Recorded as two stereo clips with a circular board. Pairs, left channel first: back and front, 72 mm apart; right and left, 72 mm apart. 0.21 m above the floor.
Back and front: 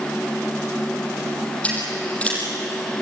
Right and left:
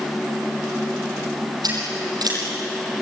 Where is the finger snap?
I don't hear a finger snap.